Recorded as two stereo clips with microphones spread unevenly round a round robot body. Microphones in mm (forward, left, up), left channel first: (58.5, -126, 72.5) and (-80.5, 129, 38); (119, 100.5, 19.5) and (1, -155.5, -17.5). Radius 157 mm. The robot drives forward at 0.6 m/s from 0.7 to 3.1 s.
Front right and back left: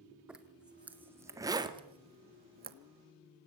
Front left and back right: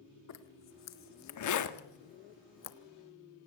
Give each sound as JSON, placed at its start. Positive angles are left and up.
{"t": 0.3, "sound": "a zipper", "azimuth_deg": 35, "distance_m": 2.0}